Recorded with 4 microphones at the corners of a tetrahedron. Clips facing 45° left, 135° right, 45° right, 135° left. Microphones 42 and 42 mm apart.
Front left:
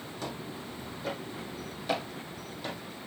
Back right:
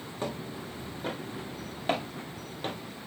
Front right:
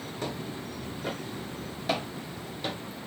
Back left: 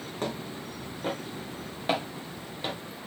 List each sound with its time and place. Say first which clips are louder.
0.2 s footsteps: back right 4 dB, back left 2 dB; 170° left, 3.5 m; by 2.8 s 165° right, 2.5 m